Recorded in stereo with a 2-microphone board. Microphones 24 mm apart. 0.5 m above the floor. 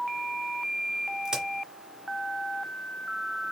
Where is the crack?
20° right (ahead or behind), 1.7 m.